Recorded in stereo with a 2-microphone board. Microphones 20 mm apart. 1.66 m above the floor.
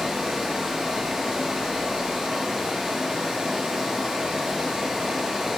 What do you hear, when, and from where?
0.0 s running water: 35° right (ahead or behind), 4.5 m